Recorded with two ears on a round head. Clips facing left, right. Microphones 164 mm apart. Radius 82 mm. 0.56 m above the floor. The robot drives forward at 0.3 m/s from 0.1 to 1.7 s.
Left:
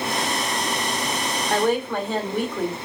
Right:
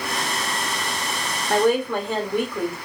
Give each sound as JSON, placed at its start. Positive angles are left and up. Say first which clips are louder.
{"t": 1.5, "sound": "a woman speaking", "louder": "right 3 dB", "side_deg": -45, "distance_m": 1.8}